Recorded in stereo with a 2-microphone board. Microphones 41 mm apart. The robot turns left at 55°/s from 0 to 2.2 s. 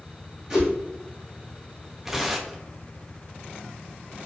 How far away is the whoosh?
About 1.3 m.